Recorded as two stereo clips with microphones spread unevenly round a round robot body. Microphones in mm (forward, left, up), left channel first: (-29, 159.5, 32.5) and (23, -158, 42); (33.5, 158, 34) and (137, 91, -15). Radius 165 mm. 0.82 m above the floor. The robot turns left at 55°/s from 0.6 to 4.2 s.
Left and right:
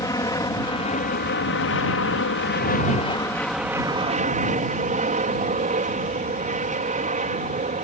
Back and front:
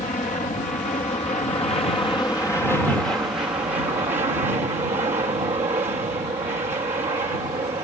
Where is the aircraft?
170° left; by 7.8 s 25° right.